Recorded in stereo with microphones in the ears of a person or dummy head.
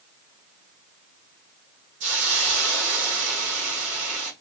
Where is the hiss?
70° right (ahead or behind), 2 m.